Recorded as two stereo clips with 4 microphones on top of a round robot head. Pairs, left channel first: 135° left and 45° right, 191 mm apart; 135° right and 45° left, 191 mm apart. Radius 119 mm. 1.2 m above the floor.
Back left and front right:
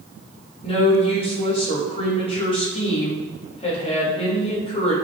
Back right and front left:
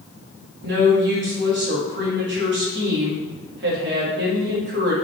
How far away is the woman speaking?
About 2.5 m.